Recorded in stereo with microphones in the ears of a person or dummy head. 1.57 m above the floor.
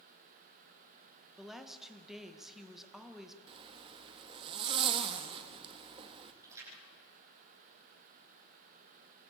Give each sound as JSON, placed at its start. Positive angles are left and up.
{"t": 1.4, "sound": "a woman speaking", "side_deg": 0, "distance_m": 1.7}
{"t": 3.5, "sound": "a zipper", "side_deg": -25, "distance_m": 1.1}
{"t": 6.4, "sound": "a splash", "side_deg": -15, "distance_m": 9.5}